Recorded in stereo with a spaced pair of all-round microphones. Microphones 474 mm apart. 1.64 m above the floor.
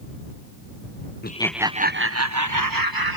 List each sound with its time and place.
1.2 s laughter: 20° left (ahead or behind); by 3.2 s 50° right (ahead or behind)